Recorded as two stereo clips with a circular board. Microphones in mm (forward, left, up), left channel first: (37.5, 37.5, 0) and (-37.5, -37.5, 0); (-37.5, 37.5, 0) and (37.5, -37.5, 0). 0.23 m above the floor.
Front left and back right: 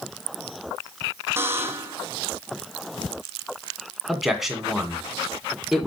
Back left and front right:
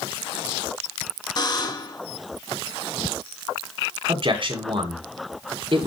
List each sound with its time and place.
1.4 s a buzzer: 170° left, 1.2 m
4.1 s a man speaking: 50° right, 2 m